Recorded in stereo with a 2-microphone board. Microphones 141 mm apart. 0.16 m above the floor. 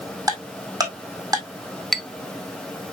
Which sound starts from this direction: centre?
A clink, at 1.9 s.